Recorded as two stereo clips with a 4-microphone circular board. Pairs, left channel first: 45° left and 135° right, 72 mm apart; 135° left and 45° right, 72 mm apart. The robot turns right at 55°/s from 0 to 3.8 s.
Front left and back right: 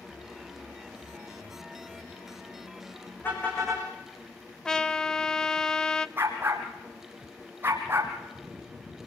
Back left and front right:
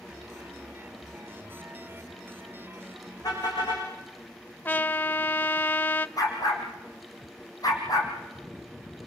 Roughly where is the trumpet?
Behind left.